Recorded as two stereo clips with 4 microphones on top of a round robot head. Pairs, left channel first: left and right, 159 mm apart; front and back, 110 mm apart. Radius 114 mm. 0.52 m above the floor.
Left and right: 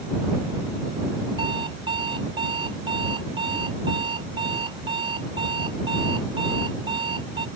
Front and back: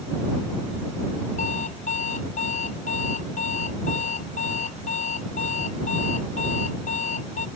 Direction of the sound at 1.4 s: 25° right.